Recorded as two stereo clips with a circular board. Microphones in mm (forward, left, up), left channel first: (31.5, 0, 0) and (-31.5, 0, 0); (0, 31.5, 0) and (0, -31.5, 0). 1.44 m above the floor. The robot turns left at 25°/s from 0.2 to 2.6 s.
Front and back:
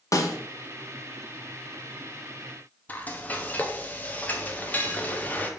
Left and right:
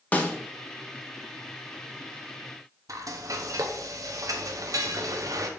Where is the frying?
65° right, 0.9 m.